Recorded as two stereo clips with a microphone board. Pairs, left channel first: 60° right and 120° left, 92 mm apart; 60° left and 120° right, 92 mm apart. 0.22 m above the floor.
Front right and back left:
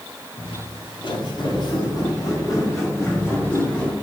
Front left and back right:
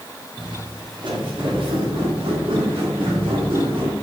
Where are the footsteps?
85° right, 3 m; by 4.0 s 135° right, 3 m.